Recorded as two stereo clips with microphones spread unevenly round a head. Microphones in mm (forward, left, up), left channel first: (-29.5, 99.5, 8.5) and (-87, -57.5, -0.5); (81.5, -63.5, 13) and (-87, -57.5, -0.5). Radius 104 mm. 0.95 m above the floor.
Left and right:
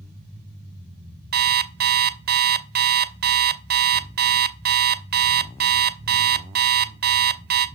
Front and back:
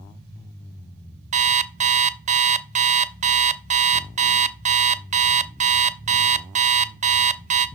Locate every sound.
1.3 s an alarm clock: 135° right, 0.6 m